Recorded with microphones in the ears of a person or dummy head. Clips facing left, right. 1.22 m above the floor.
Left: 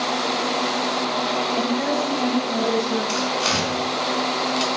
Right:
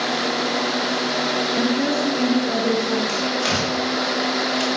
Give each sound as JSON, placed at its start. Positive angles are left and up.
{"t": 1.6, "sound": "a woman speaking", "side_deg": -15, "distance_m": 0.6}
{"t": 3.1, "sound": "tearing paper", "side_deg": -50, "distance_m": 2.0}